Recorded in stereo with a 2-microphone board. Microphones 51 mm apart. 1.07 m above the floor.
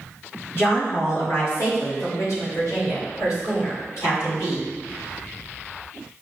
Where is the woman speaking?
50° left (ahead or behind), 1.5 m; by 4.7 s 70° left (ahead or behind), 3 m.